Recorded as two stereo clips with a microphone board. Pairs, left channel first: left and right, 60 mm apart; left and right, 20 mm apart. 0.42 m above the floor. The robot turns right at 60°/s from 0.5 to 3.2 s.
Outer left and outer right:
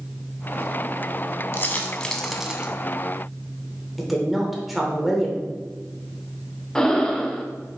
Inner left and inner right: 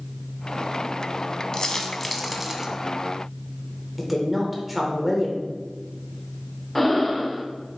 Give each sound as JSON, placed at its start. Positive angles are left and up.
{"t": 1.5, "sound": "a dropped coin", "side_deg": 45, "distance_m": 0.6}
{"t": 4.0, "sound": "a woman speaking", "side_deg": 0, "distance_m": 0.9}
{"t": 6.8, "sound": "breathing", "side_deg": 10, "distance_m": 0.5}